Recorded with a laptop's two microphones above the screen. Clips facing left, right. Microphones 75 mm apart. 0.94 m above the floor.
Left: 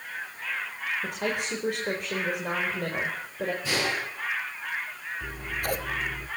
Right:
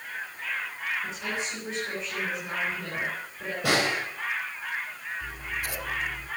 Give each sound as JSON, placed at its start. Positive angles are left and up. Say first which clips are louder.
{"t": 1.0, "sound": "a woman speaking", "louder": "left 3 dB", "side_deg": 65, "distance_m": 4.5}
{"t": 3.6, "sound": "a snare drum", "louder": "right 7 dB", "side_deg": -75, "distance_m": 5.0}
{"t": 5.2, "sound": "scissors", "louder": "left 4 dB", "side_deg": 50, "distance_m": 1.3}